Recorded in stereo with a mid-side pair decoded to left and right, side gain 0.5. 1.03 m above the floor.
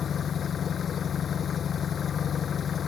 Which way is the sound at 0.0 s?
45° left.